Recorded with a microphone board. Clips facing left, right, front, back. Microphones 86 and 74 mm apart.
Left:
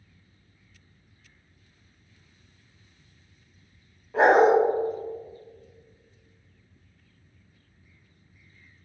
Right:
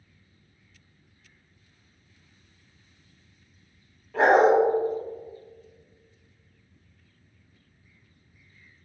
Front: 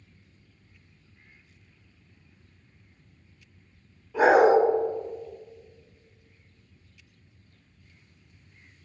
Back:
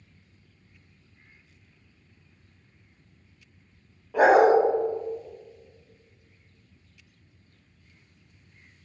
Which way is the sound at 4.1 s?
160° left.